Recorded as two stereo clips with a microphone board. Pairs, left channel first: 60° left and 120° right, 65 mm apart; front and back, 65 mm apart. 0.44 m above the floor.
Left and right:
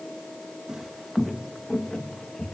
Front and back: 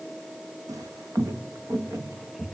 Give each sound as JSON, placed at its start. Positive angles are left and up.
{"t": 0.7, "sound": "footsteps", "azimuth_deg": 160, "distance_m": 1.2}